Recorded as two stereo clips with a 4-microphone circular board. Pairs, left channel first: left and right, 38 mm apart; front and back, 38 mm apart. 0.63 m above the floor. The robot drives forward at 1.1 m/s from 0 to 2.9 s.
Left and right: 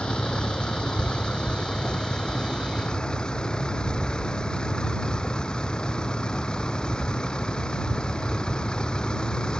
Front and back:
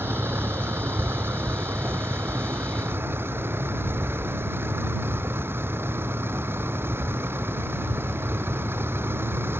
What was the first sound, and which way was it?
A vehicle, 160° left.